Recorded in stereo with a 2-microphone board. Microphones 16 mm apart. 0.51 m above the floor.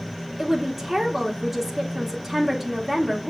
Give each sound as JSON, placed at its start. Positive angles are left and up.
{"t": 0.4, "sound": "a woman speaking", "side_deg": -15, "distance_m": 0.9}